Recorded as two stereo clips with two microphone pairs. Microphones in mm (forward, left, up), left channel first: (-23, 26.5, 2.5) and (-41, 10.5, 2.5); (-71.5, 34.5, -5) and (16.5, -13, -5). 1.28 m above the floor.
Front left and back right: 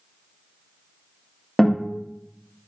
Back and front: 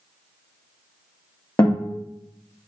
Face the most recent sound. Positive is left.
turn(degrees=115)